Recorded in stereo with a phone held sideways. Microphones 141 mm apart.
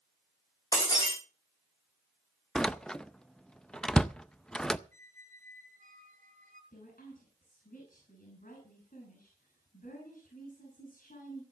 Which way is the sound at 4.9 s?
65° right (ahead or behind).